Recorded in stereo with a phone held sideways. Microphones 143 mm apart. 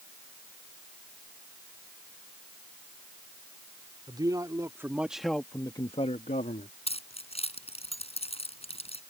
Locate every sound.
4.1 s a man speaking: 30° right (ahead or behind); by 6.7 s 75° left (ahead or behind)
6.9 s keys jangling: 45° left (ahead or behind)